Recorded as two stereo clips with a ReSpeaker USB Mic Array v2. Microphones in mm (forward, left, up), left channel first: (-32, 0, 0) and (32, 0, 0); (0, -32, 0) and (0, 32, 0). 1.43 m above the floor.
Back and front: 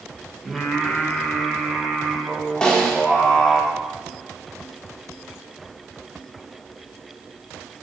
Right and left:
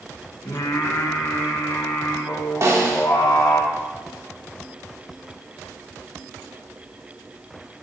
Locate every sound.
0.5 s singing: 90° right, 1.4 m
2.6 s a snare drum: 105° left, 1.4 m